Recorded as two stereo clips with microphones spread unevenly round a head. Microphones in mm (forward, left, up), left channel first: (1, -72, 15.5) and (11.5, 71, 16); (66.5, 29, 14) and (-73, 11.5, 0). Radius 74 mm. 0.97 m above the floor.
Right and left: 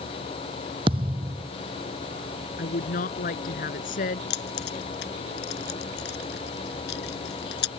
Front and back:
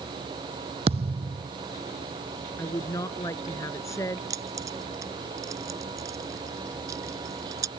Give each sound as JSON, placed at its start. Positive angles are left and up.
{"t": 0.9, "sound": "a thud", "azimuth_deg": 140}
{"t": 2.6, "sound": "a woman speaking", "azimuth_deg": -65}
{"t": 4.3, "sound": "keys jangling", "azimuth_deg": -105}